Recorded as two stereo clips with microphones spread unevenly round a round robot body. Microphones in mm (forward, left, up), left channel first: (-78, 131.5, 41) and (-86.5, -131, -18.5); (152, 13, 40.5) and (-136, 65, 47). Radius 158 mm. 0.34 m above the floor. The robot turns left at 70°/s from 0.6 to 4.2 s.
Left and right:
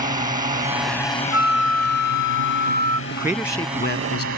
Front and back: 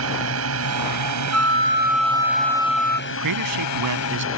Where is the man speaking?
160° right; by 4.3 s 125° left.